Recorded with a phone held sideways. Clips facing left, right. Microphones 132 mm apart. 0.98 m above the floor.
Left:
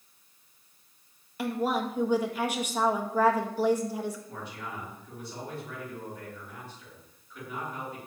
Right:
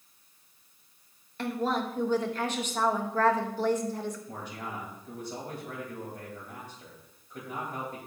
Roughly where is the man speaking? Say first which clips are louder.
Right 1 dB; right.